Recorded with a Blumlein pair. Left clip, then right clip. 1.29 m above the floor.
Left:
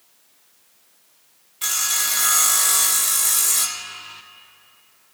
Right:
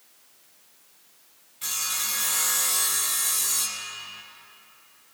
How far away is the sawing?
About 0.8 m.